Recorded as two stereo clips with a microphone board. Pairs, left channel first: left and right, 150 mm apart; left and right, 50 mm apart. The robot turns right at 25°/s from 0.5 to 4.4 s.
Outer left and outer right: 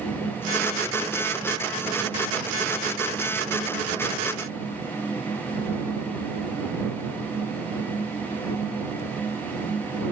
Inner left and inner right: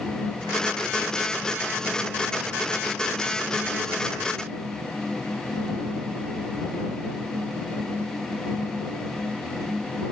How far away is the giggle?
No giggle in this recording.